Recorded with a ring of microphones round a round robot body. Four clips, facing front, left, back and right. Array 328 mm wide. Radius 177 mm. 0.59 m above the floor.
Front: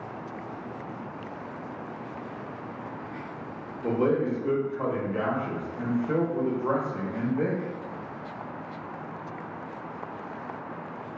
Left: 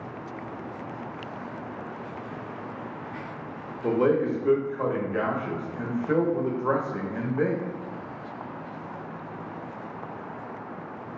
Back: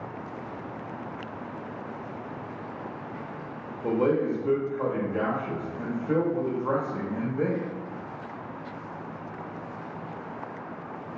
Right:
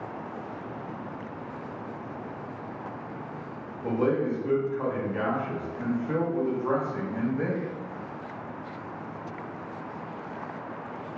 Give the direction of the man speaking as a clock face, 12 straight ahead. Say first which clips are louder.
Left 3 dB, back 1 dB; 9 o'clock.